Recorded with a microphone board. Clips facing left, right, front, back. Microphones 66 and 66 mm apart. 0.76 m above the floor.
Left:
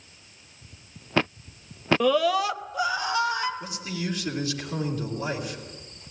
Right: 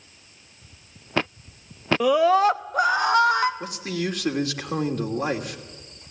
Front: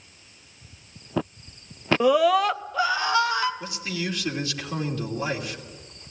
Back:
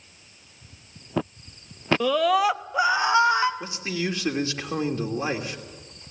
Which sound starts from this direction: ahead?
A scream, at 2.0 s.